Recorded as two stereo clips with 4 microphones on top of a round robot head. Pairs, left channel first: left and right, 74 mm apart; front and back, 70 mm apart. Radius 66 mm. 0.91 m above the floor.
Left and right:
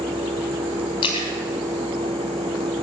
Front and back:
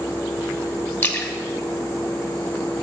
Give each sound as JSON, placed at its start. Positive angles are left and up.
{"t": 1.0, "sound": "a splash", "azimuth_deg": 60, "distance_m": 1.3}